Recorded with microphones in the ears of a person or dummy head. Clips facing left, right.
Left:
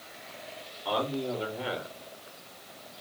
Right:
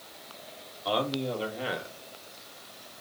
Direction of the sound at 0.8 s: 35° right (ahead or behind).